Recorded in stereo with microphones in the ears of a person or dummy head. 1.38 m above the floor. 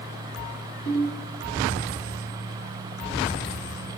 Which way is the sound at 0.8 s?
10° left (ahead or behind).